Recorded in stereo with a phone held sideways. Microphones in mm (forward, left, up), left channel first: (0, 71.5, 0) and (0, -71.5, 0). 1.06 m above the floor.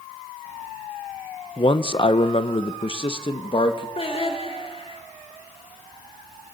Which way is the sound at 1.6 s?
35° left (ahead or behind).